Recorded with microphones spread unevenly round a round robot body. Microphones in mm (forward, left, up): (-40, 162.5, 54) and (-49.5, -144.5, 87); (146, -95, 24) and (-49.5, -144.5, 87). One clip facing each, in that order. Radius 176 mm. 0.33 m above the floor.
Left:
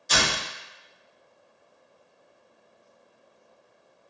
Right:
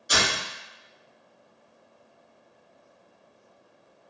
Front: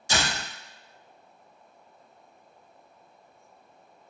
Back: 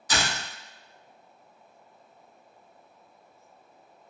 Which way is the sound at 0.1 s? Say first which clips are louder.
Even, front 1 dB; 10° right.